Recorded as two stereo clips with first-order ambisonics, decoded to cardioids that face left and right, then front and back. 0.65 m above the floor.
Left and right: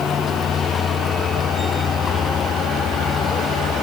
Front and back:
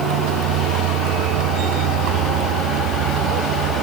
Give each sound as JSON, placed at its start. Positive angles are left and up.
{"t": 0.0, "sound": "a vehicle", "azimuth_deg": 155}